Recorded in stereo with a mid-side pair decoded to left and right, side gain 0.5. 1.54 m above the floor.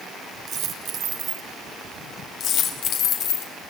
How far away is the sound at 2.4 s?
About 4.5 m.